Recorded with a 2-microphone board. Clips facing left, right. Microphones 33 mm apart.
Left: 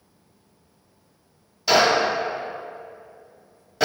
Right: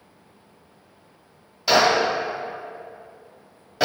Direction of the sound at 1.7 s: 10° right (ahead or behind).